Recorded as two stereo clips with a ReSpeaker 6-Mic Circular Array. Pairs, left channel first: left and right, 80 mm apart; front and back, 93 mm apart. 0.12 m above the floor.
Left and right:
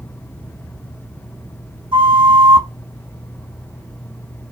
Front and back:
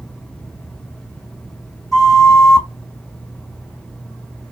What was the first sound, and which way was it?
A flute, 90° right.